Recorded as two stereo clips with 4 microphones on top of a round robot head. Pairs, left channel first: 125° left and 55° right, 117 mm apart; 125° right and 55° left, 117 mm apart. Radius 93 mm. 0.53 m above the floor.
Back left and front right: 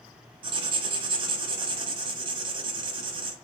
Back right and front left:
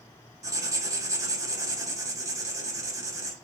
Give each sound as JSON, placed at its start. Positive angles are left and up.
{"t": 0.4, "sound": "writing", "azimuth_deg": -5, "distance_m": 0.7}